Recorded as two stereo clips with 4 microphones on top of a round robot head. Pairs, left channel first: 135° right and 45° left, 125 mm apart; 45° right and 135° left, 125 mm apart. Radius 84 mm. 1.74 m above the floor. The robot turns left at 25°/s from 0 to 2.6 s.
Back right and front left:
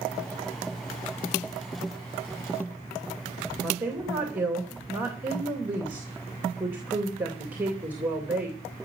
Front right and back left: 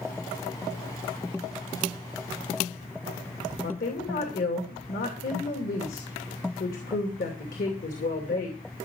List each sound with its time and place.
3.6 s a woman speaking: 30° right, 2.5 m